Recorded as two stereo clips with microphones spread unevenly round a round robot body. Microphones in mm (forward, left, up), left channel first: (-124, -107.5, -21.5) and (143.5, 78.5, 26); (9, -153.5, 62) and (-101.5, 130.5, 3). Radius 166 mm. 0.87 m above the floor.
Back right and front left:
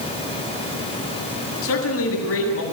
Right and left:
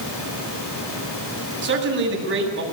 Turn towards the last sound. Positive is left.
turn(degrees=165)